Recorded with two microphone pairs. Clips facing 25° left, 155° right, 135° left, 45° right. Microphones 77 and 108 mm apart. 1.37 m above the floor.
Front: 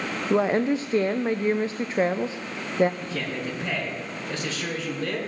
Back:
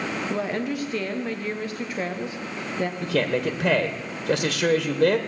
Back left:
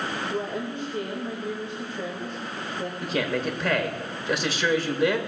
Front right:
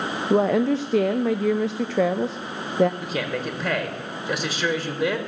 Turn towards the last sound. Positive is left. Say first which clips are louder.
# back 7 dB, back left 1 dB
turn(degrees=-130)